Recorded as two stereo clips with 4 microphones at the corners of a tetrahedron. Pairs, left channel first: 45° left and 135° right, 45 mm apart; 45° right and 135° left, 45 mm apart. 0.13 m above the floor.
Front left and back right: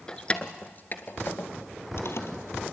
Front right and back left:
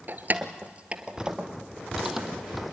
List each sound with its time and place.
0.1 s keys jangling: 110° left, 1.3 m; by 2.6 s 50° left, 3 m